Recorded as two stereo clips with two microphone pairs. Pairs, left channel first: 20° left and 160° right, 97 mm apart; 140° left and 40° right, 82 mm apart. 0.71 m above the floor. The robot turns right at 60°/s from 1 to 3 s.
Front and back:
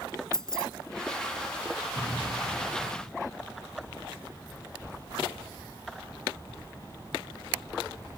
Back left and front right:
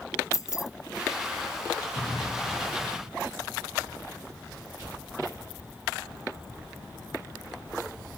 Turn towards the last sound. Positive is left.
turn(degrees=-80)